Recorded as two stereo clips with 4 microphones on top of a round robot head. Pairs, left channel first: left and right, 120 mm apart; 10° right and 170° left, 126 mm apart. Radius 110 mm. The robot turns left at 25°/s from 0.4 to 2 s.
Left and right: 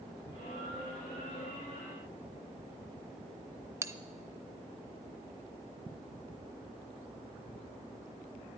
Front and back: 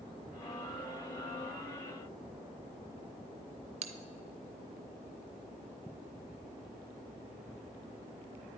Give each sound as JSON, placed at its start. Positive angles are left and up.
{"t": 3.8, "sound": "a bell", "azimuth_deg": -160, "distance_m": 0.6}